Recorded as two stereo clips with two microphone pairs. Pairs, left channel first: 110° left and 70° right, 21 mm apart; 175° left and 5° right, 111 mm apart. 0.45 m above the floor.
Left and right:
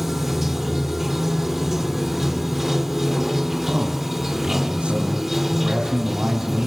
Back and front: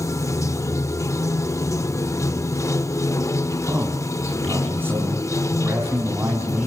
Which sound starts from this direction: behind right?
Running water, at 0.0 s.